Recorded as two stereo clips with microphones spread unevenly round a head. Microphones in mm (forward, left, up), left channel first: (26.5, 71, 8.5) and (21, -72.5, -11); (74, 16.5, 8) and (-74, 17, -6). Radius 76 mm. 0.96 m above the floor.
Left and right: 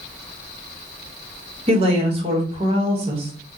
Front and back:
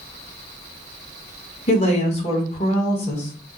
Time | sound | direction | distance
1.7 | a woman speaking | 50° right | 1.0 m